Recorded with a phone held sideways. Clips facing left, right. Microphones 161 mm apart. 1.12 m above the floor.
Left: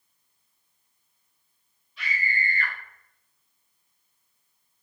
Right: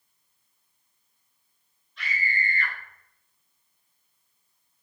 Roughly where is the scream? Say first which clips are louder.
Even; centre.